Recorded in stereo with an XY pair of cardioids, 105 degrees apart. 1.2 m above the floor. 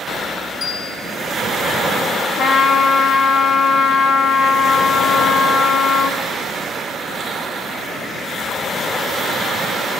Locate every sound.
0.6 s a bell: 40° left, 5.5 m
2.4 s a trumpet: 60° left, 1.8 m